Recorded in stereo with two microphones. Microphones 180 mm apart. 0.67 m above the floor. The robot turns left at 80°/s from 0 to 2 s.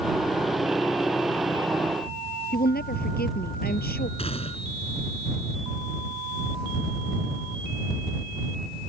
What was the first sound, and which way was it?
A woman speaking, 60° left (ahead or behind).